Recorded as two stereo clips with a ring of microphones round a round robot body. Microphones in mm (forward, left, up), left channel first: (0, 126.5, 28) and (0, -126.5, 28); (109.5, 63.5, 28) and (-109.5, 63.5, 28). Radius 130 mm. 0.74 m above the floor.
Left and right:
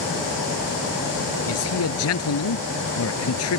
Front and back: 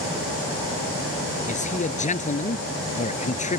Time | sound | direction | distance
1.5 | a man speaking | 55° left | ?